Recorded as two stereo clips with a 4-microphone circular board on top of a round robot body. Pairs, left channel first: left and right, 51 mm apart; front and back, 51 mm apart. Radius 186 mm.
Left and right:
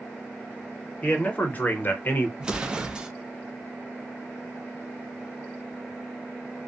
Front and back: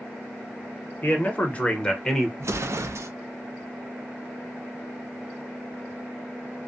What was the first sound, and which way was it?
A man speaking, 35° left.